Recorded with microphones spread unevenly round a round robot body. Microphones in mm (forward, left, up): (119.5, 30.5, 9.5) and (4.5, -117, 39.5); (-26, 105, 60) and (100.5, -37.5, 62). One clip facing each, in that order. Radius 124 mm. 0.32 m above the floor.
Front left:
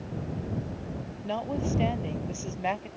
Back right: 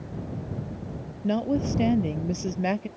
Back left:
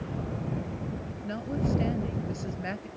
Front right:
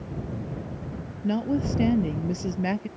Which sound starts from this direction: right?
A woman speaking, at 1.2 s.